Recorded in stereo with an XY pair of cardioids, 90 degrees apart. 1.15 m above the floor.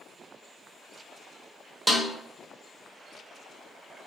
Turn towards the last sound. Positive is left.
turn(degrees=-30)